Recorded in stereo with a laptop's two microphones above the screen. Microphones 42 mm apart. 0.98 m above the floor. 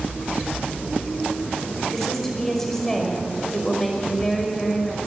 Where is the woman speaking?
10° left (ahead or behind), 5 m.